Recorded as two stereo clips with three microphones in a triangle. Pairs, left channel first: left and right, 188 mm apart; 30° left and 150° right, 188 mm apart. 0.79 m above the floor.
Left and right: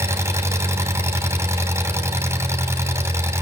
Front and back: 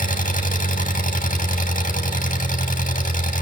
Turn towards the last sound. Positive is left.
turn(degrees=-15)